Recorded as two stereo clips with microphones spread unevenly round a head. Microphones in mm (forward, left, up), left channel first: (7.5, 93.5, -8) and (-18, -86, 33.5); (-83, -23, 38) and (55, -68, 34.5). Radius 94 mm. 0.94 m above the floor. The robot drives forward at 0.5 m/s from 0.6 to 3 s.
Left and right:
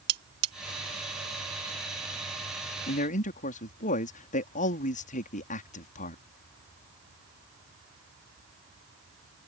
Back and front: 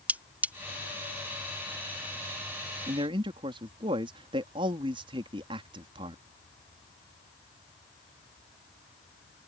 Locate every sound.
0.1 s cutlery clinking: 95° right
2.9 s a man speaking: 40° left